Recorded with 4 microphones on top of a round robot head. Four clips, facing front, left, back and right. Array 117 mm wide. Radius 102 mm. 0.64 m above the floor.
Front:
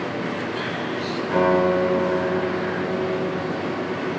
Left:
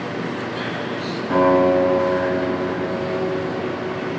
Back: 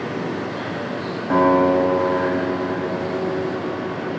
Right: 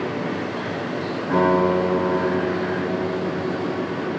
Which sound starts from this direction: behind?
A guitar, at 1.3 s.